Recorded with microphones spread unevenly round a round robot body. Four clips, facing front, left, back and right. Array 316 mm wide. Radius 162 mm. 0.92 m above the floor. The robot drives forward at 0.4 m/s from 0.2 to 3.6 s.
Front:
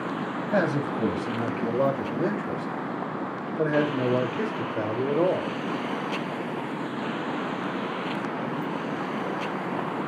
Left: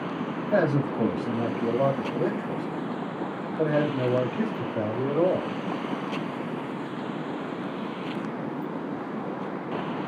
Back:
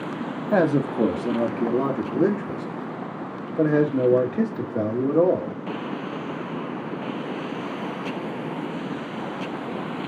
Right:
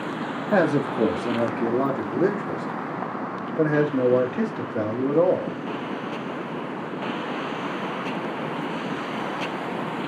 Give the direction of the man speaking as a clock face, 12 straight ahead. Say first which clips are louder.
Right 3 dB, back 5 dB; 5 o'clock.